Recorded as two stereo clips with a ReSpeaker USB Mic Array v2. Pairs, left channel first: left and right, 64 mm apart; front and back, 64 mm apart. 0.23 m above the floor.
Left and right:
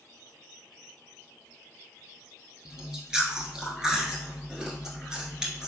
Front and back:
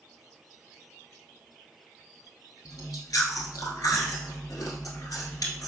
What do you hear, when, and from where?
2.6 s chewing: 10° right, 0.9 m